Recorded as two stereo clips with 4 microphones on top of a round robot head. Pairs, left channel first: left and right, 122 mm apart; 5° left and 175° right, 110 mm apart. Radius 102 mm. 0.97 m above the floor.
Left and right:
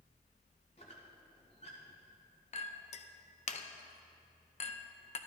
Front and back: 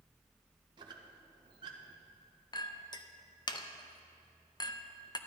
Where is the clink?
55° left, 0.7 m.